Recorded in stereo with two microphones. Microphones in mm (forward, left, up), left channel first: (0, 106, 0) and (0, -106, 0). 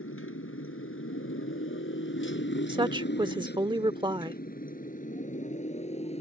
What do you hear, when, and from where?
0.0 s a motorcycle: 85° left; by 6.2 s 30° left (ahead or behind)
2.7 s a woman speaking: 20° right (ahead or behind)